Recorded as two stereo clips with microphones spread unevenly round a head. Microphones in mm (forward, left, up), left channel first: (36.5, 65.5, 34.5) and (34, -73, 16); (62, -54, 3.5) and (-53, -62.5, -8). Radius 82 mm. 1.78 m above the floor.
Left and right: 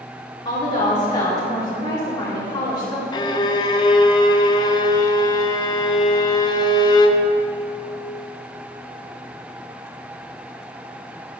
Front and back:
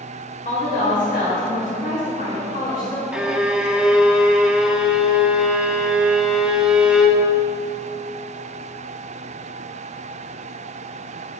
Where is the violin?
95° left, 0.5 m.